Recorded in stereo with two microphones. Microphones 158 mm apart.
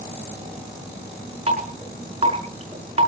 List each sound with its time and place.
1.5 s dripping: 40° right (ahead or behind), 5.5 m